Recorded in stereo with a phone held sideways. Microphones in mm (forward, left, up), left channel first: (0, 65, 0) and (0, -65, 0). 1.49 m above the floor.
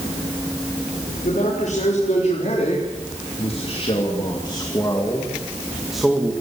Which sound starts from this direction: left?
A man speaking, at 1.2 s.